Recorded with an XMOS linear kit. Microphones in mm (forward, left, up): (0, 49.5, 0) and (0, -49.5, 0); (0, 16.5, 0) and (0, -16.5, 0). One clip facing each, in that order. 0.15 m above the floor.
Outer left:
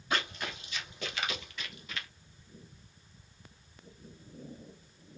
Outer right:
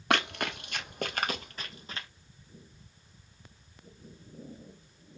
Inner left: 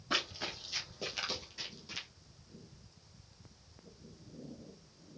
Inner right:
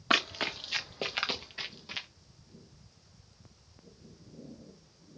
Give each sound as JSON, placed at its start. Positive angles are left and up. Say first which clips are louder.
{"t": 0.1, "sound": "running footsteps", "louder": "outer right 5 dB, inner right 7 dB", "side_deg": -70, "distance_m": 1.4}